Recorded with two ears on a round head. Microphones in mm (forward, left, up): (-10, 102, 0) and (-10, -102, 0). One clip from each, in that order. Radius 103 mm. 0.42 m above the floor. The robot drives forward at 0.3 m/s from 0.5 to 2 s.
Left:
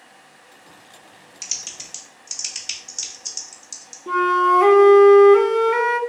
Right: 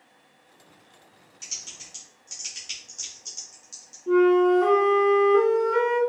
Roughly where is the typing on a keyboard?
Left.